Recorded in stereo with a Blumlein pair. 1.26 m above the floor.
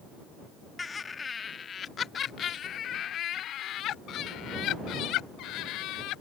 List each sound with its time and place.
0.8 s laughter: 10° left; by 6.2 s 40° left